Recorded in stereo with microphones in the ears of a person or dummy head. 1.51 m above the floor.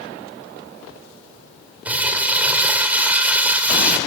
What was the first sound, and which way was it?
Crumpling, 5° right (ahead or behind).